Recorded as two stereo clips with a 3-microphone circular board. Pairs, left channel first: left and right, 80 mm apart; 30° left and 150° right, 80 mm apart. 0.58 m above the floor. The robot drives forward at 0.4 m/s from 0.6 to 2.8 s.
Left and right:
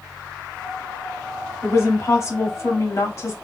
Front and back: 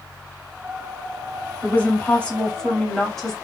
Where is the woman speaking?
80° left, 1.4 m; by 3.3 s 110° left, 1.4 m.